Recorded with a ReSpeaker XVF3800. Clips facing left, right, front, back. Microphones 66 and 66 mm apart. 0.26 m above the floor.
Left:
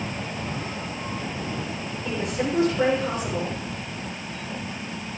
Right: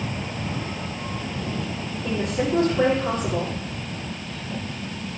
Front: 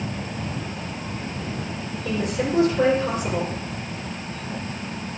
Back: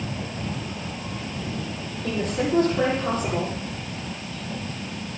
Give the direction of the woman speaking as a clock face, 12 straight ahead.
5 o'clock.